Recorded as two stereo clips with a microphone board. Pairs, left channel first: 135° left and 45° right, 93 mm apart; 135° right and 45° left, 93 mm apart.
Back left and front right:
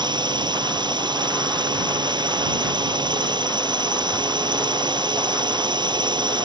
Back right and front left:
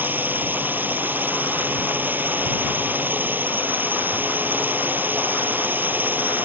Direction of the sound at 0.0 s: 25° right.